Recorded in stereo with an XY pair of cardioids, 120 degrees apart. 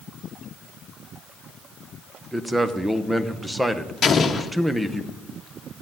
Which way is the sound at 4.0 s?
40° left.